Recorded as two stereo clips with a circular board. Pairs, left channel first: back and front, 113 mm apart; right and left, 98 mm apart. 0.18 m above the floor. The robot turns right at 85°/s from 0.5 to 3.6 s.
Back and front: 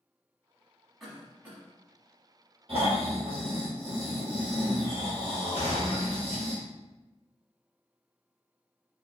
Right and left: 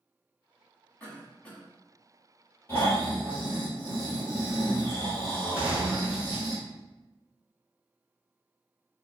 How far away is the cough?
About 1.0 m.